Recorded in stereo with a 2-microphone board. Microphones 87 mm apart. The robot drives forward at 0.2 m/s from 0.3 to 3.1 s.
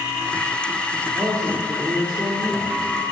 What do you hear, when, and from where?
1.1 s a man speaking: 35° right (ahead or behind), 3 m